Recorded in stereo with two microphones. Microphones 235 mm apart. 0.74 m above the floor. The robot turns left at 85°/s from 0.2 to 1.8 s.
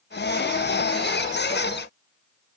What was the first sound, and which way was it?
Only background noise.